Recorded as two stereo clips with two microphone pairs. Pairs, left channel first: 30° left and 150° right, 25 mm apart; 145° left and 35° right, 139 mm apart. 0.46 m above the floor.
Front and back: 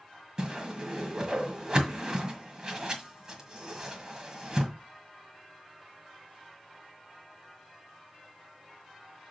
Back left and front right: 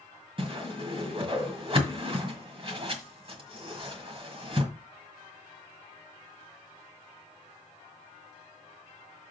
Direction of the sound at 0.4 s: 85° right.